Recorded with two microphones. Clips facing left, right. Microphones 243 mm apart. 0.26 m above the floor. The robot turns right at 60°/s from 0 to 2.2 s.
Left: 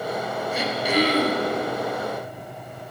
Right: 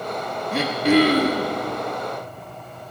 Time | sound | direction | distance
0.5 | throat clearing | 105° right | 1.1 m